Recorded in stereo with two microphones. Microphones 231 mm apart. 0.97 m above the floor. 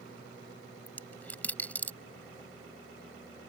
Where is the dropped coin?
5° left (ahead or behind).